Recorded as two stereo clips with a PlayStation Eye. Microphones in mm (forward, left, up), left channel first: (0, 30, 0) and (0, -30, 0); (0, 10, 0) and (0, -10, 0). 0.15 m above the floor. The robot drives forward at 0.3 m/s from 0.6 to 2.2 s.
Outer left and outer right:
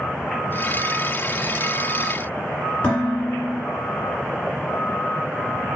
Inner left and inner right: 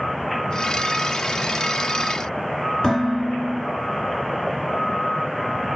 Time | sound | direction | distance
2.8 | dishes clattering | 25° left (ahead or behind) | 1.2 m